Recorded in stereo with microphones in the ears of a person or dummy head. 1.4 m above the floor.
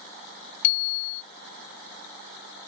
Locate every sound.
0.6 s a bicycle bell: 50° left (ahead or behind)